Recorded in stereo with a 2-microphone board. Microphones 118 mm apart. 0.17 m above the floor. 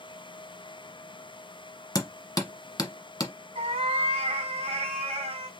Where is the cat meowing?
60° right (ahead or behind), 2.5 m.